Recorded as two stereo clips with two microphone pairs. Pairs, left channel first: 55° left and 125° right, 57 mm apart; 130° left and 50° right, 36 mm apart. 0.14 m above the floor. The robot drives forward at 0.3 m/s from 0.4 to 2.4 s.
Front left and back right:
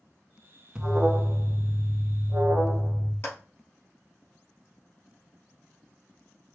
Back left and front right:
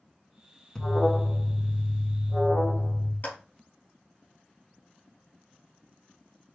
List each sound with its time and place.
0.8 s an alarm: straight behind, 0.8 m
3.2 s a clap: 100° left, 3 m